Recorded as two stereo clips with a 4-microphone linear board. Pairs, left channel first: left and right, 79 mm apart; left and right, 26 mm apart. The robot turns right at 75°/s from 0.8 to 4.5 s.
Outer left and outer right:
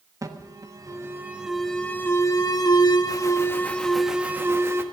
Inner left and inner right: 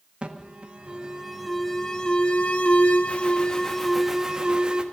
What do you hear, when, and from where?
0.2 s an alarm: 60° right, 1.5 m; by 4.8 s 140° right, 1.5 m